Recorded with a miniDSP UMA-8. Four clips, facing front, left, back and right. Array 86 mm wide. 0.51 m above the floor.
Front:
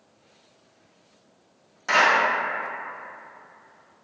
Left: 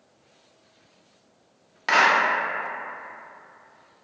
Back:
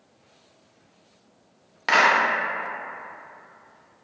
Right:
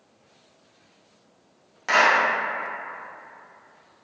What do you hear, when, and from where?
1.9 s a clap: 160° left, 0.7 m